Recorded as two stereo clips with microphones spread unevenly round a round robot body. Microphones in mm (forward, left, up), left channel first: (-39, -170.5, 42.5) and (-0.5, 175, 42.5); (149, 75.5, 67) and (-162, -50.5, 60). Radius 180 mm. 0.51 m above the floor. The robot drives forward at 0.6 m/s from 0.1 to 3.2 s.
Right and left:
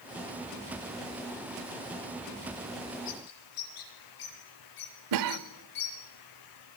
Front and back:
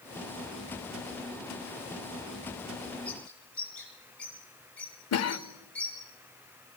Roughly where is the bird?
Ahead right.